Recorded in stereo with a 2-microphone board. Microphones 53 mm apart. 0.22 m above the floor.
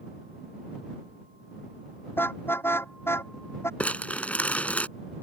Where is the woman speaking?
I don't hear a woman speaking.